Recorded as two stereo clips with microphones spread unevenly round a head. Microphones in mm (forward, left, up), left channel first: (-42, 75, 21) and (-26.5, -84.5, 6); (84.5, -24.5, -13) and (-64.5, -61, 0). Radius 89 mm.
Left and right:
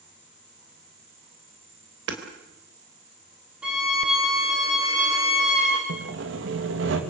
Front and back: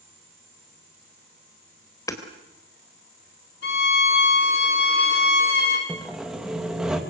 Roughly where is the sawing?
Right.